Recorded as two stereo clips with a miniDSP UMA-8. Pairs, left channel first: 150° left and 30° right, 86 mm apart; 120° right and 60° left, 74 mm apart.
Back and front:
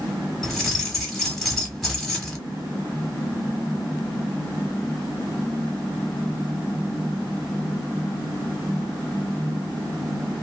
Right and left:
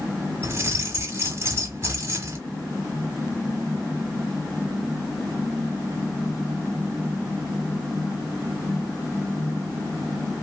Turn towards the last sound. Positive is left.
turn(degrees=65)